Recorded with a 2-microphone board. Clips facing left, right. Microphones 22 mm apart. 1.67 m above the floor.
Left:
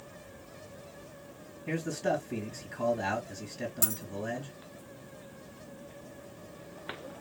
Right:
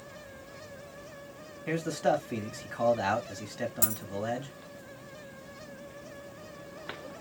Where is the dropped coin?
15° right (ahead or behind), 1.9 m.